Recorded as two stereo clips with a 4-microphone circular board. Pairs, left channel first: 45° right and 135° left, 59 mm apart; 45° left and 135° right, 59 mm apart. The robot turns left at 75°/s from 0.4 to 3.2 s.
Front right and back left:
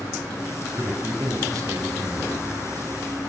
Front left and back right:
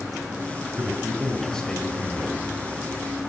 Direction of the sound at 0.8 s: 175° right.